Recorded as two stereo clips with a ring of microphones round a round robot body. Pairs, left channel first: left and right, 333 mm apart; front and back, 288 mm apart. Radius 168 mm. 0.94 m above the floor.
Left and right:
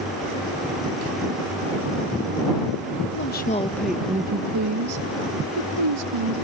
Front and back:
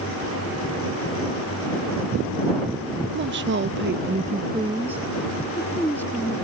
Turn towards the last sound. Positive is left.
turn(degrees=-80)